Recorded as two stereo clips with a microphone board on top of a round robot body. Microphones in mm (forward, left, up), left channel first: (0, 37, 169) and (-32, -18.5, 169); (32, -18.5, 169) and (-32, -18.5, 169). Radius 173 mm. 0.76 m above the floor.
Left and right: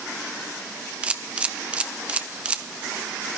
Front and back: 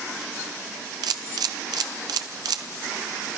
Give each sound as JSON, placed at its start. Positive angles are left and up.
{"t": 1.0, "sound": "a camera shutter", "azimuth_deg": 165, "distance_m": 0.6}